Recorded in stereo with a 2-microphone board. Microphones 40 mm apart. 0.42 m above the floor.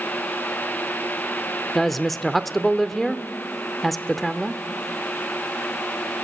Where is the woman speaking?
5° left (ahead or behind), 0.7 m.